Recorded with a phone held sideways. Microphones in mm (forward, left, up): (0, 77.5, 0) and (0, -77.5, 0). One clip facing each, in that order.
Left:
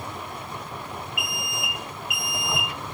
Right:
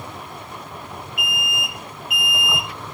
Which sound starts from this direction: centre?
An alarm, at 1.2 s.